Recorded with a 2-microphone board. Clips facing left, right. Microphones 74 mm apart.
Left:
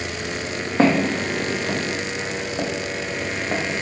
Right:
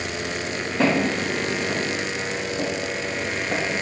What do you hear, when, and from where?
0.8 s footsteps: 80° left, 1.6 m; by 3.8 s 10° left (ahead or behind), 1.2 m